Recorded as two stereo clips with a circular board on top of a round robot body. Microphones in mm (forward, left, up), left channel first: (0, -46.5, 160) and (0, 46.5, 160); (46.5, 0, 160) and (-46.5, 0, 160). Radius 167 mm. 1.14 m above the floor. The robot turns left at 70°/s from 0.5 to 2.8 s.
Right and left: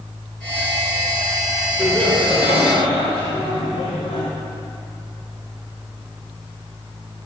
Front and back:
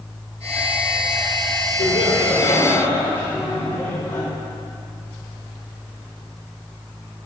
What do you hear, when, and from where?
1.8 s laughter: straight ahead, 4.5 m; by 4.2 s 70° right, 4.5 m